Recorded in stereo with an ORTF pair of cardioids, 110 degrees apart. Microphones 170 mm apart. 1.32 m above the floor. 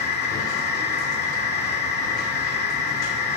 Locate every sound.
0.0 s a machine running: 70° left, 2.5 m